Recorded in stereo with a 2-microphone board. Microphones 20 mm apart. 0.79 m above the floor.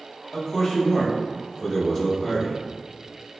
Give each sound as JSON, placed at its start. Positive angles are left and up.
{"t": 0.3, "sound": "a man speaking", "side_deg": 25, "distance_m": 1.7}